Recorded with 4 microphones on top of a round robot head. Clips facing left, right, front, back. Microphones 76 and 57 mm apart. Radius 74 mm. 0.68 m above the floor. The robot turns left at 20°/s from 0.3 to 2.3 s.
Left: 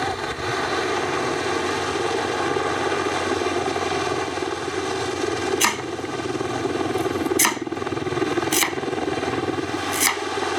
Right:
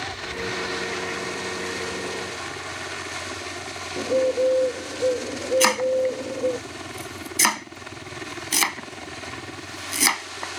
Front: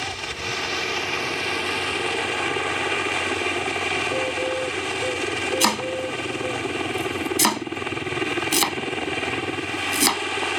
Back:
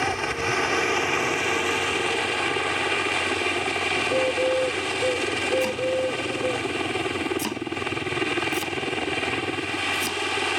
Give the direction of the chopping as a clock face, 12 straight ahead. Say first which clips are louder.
Right 4 dB, even; 12 o'clock.